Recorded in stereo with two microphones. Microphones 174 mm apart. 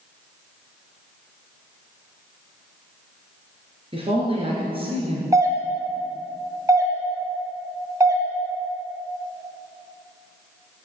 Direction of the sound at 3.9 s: 35° right (ahead or behind).